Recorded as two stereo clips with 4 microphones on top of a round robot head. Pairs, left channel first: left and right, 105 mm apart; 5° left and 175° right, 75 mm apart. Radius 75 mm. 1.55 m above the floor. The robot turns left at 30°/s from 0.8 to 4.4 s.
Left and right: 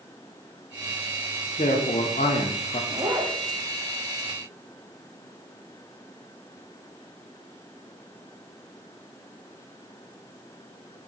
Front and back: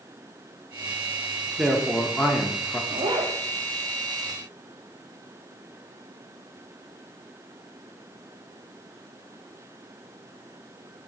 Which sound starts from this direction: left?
A man speaking, at 1.6 s.